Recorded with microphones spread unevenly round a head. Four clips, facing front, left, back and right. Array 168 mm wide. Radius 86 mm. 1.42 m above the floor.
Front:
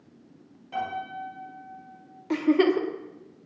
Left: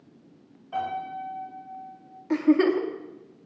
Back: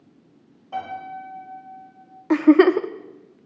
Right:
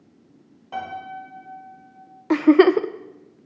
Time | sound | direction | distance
0.7 | a piano | 95° right | 6 m
2.3 | a giggle | 120° right | 0.6 m